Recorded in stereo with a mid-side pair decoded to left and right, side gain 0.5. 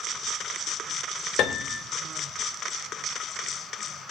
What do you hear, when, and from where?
1.4 s a piano: 70° left, 1.5 m